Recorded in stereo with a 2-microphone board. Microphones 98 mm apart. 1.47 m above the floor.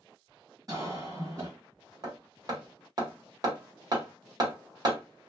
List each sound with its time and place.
0.7 s a cough: 35° right (ahead or behind), 1.3 m
2.0 s hammering: 40° right (ahead or behind), 1.5 m